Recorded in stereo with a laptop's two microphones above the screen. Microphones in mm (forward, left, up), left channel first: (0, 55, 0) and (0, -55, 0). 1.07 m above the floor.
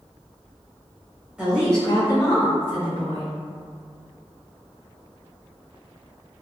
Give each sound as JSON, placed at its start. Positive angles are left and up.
{"t": 1.4, "sound": "a woman speaking", "side_deg": -10, "distance_m": 0.8}